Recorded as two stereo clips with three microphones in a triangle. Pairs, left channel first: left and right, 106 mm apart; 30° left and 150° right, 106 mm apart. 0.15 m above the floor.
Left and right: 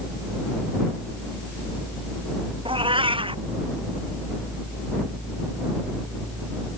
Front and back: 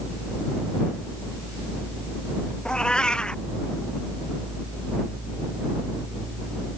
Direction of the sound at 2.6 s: 55° right.